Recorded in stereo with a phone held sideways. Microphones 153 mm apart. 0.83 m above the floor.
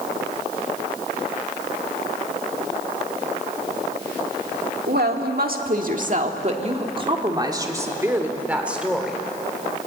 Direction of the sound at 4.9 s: 75° right (ahead or behind).